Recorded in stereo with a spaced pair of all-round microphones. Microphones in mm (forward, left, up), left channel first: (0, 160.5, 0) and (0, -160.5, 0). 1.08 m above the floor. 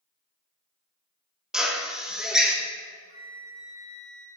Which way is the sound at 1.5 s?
Centre (ahead or behind).